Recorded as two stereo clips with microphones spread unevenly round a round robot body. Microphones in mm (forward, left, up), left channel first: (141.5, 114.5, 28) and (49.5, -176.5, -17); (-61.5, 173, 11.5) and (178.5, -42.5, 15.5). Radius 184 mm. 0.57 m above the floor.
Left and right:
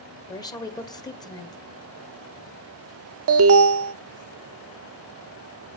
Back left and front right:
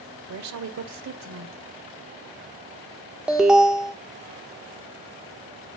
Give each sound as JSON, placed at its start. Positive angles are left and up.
{"t": 0.3, "sound": "a woman speaking", "azimuth_deg": -10, "distance_m": 2.0}
{"t": 3.3, "sound": "an alarm", "azimuth_deg": -130, "distance_m": 0.6}